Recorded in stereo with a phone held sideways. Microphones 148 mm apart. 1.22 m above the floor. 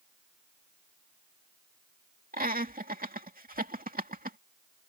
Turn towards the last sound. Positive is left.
turn(degrees=-80)